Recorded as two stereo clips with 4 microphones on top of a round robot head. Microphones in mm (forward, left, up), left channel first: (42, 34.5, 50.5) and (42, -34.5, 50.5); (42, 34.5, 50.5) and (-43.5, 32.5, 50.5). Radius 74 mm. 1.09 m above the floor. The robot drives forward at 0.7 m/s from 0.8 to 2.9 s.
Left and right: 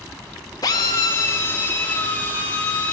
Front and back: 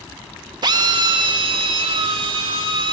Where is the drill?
145° left, 0.9 m; by 2.9 s 165° left, 2 m.